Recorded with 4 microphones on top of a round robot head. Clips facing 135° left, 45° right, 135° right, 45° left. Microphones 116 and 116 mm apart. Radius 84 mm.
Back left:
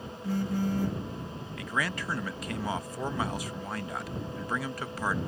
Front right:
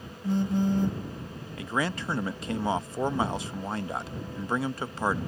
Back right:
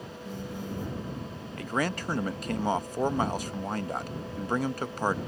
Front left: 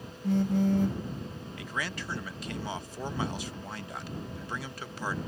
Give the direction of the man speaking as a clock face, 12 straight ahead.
3 o'clock.